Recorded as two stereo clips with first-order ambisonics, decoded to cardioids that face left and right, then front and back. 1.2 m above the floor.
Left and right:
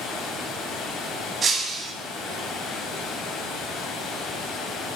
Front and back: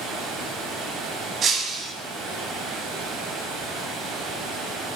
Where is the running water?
145° left, 2.5 m.